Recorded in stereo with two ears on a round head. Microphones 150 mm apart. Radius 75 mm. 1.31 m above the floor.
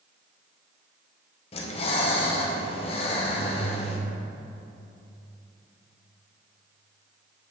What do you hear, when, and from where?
1.5 s breathing: 35° left (ahead or behind), 0.6 m